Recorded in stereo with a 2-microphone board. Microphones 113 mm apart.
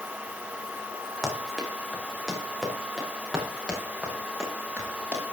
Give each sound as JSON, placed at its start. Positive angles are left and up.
{"t": 1.2, "sound": "running footsteps", "side_deg": 0, "distance_m": 6.0}